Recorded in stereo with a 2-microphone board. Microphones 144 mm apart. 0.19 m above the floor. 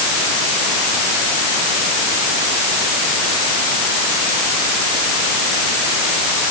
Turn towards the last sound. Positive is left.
No sound to turn to.